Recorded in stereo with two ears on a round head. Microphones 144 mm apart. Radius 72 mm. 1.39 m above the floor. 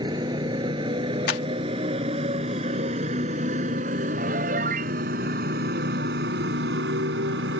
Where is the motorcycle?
25° right (ahead or behind); by 7.6 s 85° right.